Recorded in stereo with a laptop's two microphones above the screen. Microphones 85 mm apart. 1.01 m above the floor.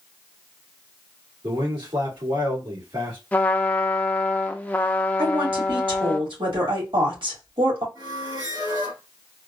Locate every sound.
1.4 s a man speaking: 65° right (ahead or behind), 2 m
3.3 s a trumpet: 20° left (ahead or behind), 0.6 m
5.2 s a woman speaking: 85° right, 2 m
8.0 s a squeak: 50° right (ahead or behind), 1.6 m